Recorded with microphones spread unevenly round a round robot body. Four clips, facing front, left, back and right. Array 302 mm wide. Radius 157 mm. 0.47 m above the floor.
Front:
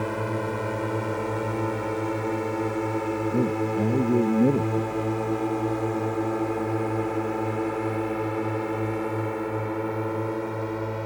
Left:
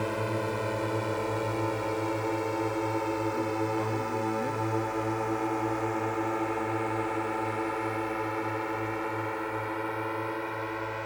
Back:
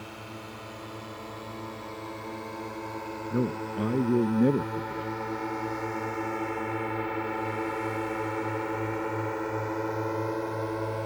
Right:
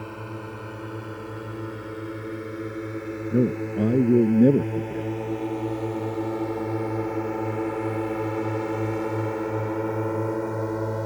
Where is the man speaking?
75° right.